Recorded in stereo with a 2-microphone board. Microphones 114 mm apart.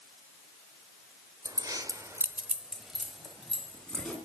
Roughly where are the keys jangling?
Right.